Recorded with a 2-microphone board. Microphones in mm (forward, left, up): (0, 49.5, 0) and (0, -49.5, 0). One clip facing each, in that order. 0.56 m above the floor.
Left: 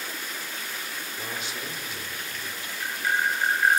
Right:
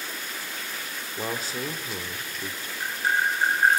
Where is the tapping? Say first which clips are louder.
Right 1 dB; 35° right (ahead or behind), 3 m.